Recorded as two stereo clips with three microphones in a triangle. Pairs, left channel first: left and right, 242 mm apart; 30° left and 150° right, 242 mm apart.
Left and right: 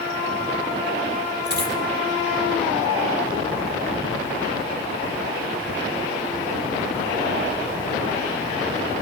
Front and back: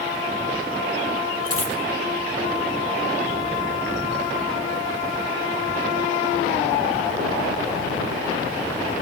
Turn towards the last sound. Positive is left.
turn(degrees=-135)